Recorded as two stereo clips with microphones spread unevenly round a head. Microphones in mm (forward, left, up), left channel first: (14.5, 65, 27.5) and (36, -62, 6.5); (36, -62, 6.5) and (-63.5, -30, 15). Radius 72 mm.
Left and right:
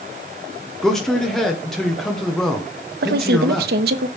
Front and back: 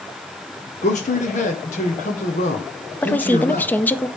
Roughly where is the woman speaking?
Right.